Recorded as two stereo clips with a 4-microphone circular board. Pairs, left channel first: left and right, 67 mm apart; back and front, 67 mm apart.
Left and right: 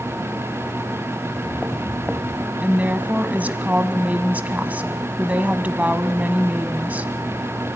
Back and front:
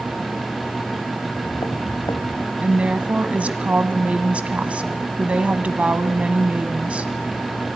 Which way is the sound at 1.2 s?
160° left.